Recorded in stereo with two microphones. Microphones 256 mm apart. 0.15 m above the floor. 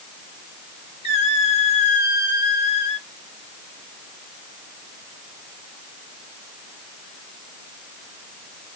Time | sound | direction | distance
1.0 | a squeak | 20° left (ahead or behind) | 2 m